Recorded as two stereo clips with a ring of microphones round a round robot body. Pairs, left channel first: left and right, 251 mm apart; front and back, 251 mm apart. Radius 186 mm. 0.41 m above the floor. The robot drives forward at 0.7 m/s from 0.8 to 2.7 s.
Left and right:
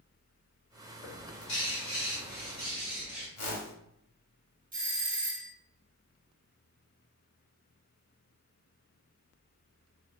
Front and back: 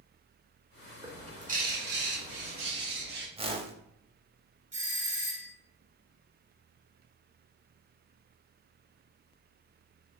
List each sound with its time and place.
1.0 s a bird: 105° left, 1.1 m; by 3.3 s 150° left, 1.8 m
3.4 s a whoosh: 110° left, 0.8 m
4.7 s a doorbell: 120° right, 1.6 m